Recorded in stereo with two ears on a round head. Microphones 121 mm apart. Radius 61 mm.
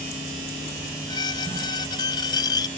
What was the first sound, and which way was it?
A squeak, 30° left (ahead or behind).